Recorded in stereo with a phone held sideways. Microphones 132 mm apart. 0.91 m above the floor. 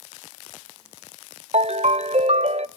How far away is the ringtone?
About 0.5 m.